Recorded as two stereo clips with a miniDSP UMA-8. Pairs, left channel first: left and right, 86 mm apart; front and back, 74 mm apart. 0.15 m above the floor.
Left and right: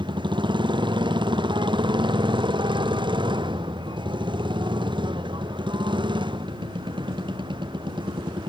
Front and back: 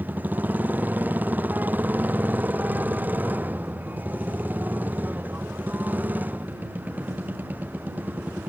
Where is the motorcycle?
110° right.